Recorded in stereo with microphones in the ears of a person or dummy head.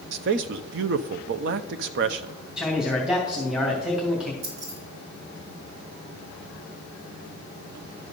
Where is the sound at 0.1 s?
55° right (ahead or behind), 0.6 m.